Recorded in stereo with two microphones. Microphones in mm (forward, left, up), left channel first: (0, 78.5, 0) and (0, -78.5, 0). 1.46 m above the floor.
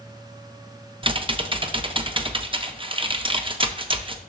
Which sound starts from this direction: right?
Typing on a keyboard, at 1.0 s.